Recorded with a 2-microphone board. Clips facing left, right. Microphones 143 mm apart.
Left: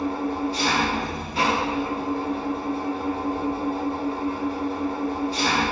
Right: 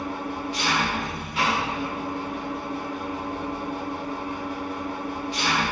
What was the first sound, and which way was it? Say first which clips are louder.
An engine running: left 5 dB; 35° left (ahead or behind).